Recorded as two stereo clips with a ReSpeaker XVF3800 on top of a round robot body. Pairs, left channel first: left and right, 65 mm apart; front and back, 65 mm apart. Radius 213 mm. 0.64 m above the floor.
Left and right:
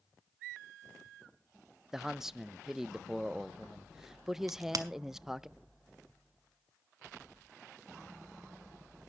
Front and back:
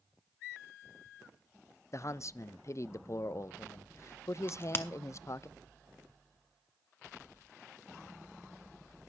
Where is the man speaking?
10° right, 0.6 m.